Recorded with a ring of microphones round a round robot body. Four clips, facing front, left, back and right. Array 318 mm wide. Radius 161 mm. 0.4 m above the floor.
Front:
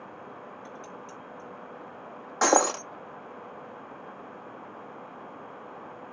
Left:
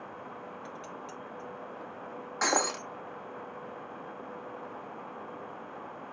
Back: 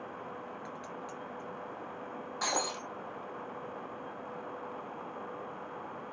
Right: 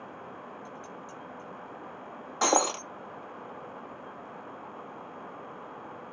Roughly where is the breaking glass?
Ahead.